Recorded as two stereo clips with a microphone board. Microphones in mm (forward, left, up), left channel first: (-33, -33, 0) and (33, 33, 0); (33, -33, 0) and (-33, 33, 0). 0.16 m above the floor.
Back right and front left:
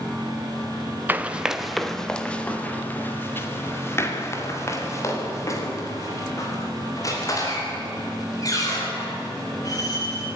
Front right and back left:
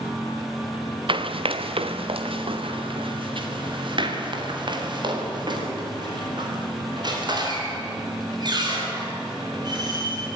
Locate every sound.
1.1 s running footsteps: 115° left, 1.4 m; by 10.3 s 175° left, 10 m